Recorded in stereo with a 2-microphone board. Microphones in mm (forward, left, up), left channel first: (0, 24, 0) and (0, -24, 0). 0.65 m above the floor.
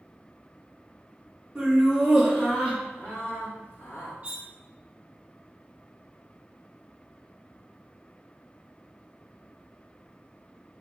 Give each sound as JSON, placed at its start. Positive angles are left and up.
{"t": 1.6, "sound": "laughter", "side_deg": -10, "distance_m": 1.2}
{"t": 4.2, "sound": "cutlery clinking", "side_deg": -35, "distance_m": 0.6}